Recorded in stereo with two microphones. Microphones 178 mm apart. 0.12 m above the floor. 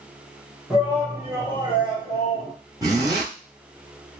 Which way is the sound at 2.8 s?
20° right (ahead or behind).